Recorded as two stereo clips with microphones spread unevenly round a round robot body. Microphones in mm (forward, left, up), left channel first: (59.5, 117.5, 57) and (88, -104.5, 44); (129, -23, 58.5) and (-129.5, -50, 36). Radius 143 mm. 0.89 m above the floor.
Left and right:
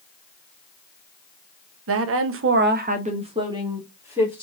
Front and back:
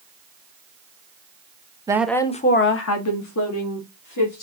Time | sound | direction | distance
1.9 | a woman speaking | 100° right | 0.8 m